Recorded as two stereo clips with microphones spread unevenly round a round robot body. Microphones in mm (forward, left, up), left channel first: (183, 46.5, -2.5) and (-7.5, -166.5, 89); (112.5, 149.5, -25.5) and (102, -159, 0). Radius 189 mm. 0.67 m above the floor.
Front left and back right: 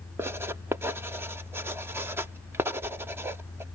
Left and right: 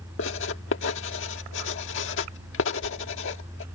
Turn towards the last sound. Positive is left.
turn(degrees=135)